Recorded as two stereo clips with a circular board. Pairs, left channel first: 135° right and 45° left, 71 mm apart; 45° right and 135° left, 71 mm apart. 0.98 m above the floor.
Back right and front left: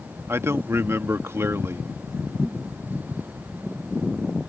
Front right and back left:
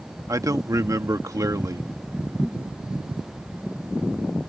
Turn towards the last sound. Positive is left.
turn(degrees=95)